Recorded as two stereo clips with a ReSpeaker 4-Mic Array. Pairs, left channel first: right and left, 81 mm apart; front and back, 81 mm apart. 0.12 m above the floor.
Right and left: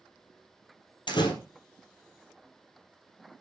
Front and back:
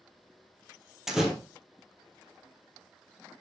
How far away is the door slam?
About 2 m.